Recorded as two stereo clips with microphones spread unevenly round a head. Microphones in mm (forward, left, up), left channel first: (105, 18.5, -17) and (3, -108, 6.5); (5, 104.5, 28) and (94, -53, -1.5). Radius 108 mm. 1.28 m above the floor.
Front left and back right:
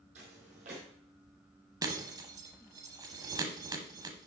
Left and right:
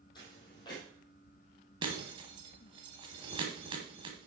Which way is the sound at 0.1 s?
175° right.